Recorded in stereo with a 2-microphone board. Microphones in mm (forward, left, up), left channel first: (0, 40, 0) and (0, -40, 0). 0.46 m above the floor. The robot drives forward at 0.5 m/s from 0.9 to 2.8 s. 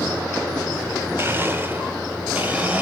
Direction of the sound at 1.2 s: 30° right (ahead or behind).